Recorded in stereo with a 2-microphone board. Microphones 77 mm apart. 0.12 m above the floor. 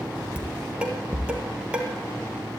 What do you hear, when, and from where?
0.4 s dishes clattering: 15° right (ahead or behind), 1.8 m